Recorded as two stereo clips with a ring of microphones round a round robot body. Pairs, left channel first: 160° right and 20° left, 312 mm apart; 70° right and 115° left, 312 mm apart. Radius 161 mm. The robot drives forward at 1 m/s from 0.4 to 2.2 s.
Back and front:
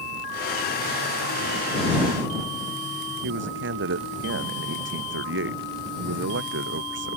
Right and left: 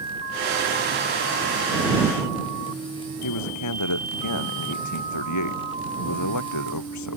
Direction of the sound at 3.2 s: 30° right.